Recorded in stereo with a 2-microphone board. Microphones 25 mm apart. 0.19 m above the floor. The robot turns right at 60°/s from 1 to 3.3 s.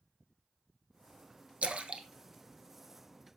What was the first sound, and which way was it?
A splash, 65° right (ahead or behind).